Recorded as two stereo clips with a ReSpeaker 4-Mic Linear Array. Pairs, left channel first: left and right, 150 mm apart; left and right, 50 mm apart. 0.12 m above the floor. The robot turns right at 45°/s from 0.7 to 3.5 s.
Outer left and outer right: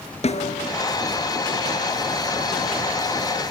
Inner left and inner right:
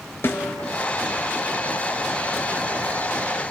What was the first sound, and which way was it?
A snare drum, 50° left (ahead or behind).